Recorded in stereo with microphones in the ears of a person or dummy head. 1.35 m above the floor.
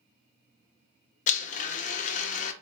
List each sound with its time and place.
1.3 s a blender: 40° left (ahead or behind), 0.6 m